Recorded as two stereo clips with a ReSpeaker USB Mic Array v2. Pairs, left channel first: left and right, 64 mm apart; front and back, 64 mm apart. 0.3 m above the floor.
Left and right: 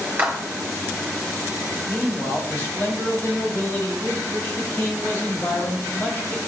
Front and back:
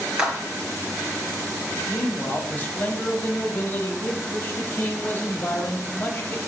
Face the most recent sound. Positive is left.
turn(degrees=50)